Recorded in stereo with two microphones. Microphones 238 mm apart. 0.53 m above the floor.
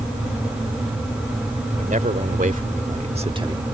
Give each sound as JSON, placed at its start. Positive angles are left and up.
{"t": 1.8, "sound": "a man speaking", "side_deg": -35}